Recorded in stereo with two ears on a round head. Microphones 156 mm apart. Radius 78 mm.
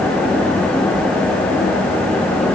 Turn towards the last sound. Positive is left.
No sound to turn to.